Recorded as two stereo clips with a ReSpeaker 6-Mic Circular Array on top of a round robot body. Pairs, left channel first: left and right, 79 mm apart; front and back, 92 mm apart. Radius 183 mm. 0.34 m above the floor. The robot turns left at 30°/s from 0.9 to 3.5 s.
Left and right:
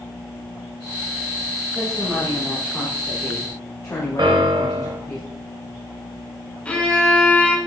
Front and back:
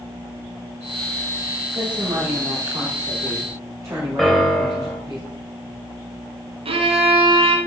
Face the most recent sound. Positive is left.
turn(degrees=170)